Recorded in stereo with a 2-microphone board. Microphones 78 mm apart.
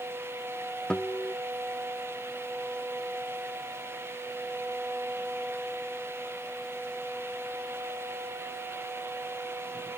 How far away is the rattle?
No rattle in this recording.